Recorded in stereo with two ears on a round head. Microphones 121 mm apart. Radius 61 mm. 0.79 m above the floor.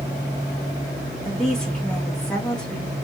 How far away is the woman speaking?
About 1.8 m.